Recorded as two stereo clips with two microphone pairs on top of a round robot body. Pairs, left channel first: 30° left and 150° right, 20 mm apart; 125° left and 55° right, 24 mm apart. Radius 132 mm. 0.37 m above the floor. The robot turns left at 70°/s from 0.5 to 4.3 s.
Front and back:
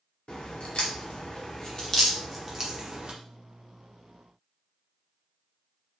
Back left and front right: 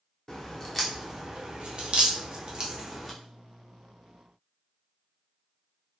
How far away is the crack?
About 1.0 m.